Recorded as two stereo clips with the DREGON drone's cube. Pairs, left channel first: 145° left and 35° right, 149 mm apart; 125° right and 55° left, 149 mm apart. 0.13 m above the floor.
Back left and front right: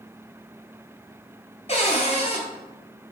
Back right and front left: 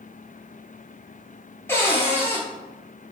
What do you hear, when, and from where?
1.7 s a cupboard door: 165° left, 0.9 m